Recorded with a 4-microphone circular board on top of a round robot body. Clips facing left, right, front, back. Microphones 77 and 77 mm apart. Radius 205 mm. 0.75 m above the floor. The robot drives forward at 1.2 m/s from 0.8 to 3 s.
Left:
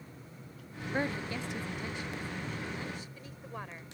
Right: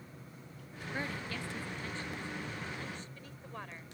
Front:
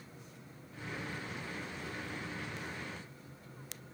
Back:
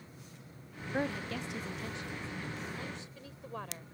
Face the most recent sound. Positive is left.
turn(degrees=170)